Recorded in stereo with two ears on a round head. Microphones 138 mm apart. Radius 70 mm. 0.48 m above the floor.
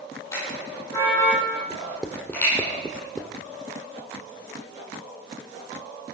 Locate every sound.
0.3 s a car horn: 20° left (ahead or behind), 9 m; by 2.5 s 10° left (ahead or behind), 9.5 m
1.7 s writing: 5° left (ahead or behind), 0.9 m